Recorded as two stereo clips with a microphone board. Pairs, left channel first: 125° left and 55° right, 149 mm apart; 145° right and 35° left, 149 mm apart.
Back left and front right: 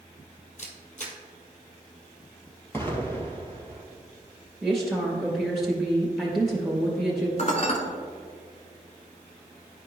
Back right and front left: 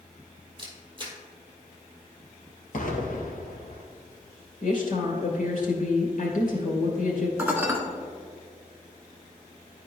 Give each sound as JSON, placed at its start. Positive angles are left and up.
{"t": 0.6, "sound": "a camera shutter", "azimuth_deg": 90, "distance_m": 1.7}
{"t": 2.7, "sound": "an explosion", "azimuth_deg": -160, "distance_m": 1.6}
{"t": 4.6, "sound": "a woman speaking", "azimuth_deg": -145, "distance_m": 2.5}
{"t": 7.4, "sound": "dishes clattering", "azimuth_deg": 110, "distance_m": 1.3}